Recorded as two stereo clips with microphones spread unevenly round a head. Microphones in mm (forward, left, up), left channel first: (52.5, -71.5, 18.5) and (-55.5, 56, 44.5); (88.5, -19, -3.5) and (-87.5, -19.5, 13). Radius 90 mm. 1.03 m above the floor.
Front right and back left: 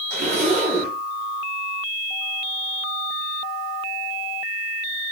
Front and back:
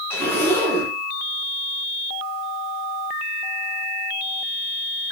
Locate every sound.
0.1 s a zipper: 80° left, 2.5 m